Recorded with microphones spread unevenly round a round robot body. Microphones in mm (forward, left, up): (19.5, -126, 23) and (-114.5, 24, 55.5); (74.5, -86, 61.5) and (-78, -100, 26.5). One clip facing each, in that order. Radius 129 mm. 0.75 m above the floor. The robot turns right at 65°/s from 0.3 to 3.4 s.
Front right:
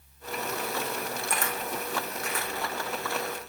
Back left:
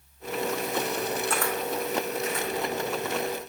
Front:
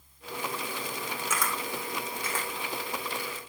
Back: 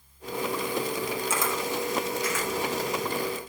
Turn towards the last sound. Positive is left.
turn(degrees=15)